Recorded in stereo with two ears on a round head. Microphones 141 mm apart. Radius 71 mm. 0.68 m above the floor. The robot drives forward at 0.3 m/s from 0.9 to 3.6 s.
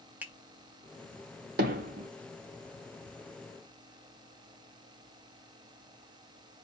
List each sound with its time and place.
0.2 s a finger snap: 10° right (ahead or behind), 0.6 m
1.6 s hammering: 60° right (ahead or behind), 0.8 m; by 2.1 s 55° right (ahead or behind), 0.9 m